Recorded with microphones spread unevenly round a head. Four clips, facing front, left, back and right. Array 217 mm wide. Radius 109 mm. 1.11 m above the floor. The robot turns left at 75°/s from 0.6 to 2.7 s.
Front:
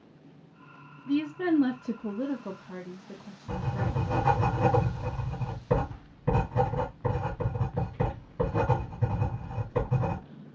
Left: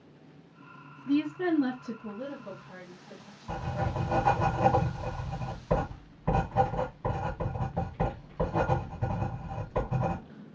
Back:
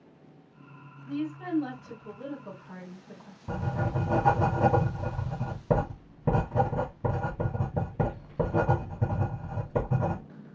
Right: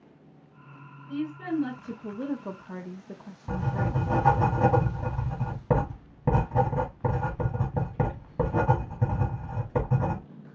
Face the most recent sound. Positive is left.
turn(degrees=-130)